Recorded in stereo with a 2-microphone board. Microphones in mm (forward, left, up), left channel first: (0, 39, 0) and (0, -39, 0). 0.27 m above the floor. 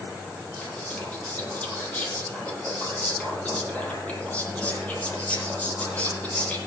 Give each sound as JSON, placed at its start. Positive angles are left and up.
{"t": 0.6, "sound": "whispering", "side_deg": 20, "distance_m": 8.0}